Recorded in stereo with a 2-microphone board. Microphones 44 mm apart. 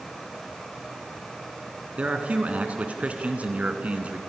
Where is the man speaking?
30° right (ahead or behind), 3 m.